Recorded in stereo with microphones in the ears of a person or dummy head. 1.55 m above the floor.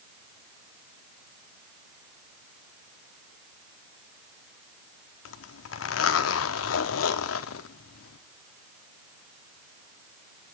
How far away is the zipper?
About 1.0 m.